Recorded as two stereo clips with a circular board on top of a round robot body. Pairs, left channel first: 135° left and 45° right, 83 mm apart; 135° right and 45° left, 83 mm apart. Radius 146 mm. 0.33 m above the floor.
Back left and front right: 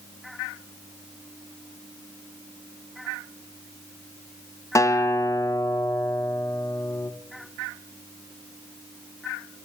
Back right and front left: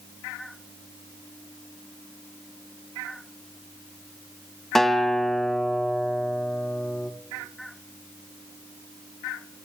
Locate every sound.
4.8 s a guitar: 140° left, 0.7 m